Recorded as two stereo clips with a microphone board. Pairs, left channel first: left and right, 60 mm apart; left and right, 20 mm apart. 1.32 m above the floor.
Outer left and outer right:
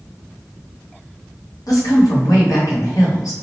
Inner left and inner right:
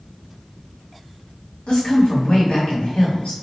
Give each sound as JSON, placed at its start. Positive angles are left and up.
{"t": 1.7, "sound": "a woman speaking", "side_deg": 80, "distance_m": 1.4}